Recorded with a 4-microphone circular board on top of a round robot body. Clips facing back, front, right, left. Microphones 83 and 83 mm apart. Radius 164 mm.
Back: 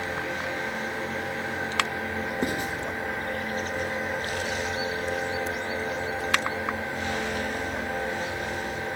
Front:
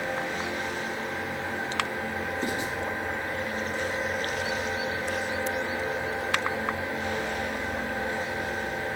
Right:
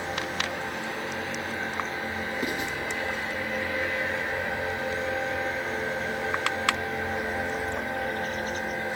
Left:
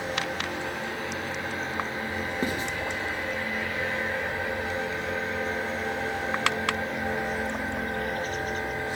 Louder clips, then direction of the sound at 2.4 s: Back 3 dB, left 2 dB; 145° left.